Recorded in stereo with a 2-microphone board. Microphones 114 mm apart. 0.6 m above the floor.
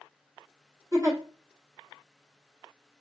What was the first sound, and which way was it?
A giggle, 30° right (ahead or behind).